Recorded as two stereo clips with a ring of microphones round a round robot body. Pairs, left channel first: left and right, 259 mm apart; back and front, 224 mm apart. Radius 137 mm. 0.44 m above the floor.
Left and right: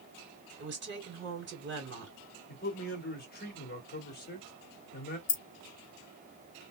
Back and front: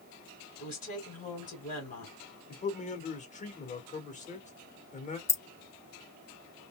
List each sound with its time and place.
0.6 s a woman speaking: 130° right, 2.5 m
2.5 s a man speaking: 130° left, 1.6 m
5.3 s keys jangling: 110° left, 0.6 m